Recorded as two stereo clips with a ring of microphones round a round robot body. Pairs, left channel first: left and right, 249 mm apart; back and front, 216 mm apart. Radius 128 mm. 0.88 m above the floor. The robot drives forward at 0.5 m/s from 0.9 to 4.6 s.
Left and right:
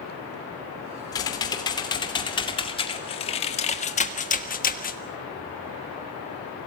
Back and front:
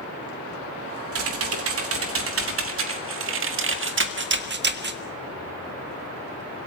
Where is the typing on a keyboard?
15° left, 3 m; by 5.0 s 35° left, 1.3 m.